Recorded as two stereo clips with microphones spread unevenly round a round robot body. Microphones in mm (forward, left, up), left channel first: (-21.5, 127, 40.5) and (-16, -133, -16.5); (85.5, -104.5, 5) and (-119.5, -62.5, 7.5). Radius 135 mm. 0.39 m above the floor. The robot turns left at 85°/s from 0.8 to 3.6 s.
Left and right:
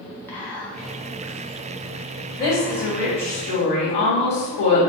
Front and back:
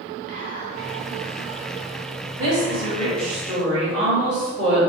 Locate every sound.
0.3 s whispering: 175° right, 1.5 m; by 3.3 s 30° right, 1.5 m
2.4 s a woman speaking: 175° left, 1.6 m; by 4.8 s 70° left, 1.6 m